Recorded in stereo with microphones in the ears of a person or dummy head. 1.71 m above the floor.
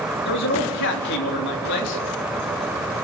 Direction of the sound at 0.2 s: 70° left (ahead or behind).